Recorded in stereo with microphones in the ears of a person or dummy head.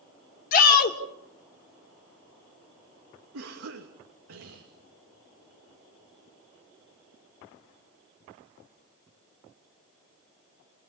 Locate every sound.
0.5 s a shout: 50° left (ahead or behind), 3 m
3.3 s a cough: 75° right (ahead or behind), 2.5 m